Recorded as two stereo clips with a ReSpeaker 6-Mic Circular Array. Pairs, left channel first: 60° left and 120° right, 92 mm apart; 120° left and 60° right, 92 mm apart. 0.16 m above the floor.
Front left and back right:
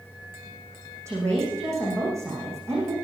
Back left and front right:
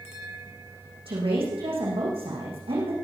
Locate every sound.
1.1 s a woman speaking: 60° right, 7.5 m